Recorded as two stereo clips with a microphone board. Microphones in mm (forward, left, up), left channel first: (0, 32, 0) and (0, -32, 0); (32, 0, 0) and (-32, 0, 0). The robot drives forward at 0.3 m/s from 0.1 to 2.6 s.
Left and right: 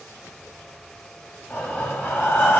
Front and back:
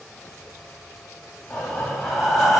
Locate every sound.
1.5 s breathing: 70° left, 1.1 m; by 2.6 s 95° left, 1.1 m